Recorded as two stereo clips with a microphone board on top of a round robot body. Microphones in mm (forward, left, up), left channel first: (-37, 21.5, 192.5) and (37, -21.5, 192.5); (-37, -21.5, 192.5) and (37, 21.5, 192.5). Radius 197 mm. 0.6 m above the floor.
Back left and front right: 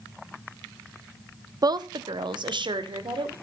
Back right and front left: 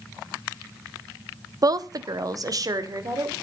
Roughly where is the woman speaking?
Ahead.